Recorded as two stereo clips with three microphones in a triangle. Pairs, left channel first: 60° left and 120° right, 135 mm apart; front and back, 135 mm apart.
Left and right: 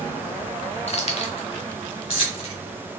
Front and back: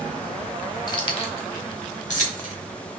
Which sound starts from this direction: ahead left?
Keys jangling, at 0.9 s.